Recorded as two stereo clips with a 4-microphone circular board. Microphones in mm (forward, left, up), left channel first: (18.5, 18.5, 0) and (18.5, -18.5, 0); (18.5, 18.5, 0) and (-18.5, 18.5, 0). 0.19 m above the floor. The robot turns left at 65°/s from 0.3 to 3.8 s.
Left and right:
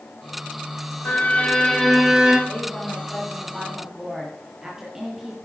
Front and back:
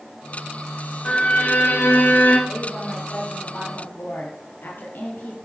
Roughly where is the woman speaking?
Left.